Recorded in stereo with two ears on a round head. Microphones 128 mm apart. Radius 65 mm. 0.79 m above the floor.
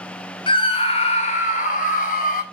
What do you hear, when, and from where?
0.5 s a scream: 35° left (ahead or behind), 2.5 m; by 2.4 s 70° left (ahead or behind), 3.5 m